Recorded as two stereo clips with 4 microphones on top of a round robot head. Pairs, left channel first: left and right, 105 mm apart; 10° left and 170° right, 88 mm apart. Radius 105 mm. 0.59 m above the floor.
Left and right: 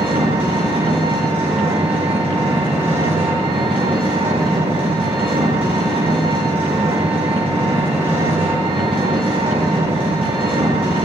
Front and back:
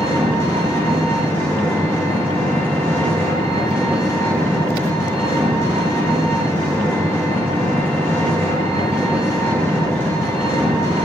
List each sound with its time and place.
0.0 s an engine running: 60° right, 6 m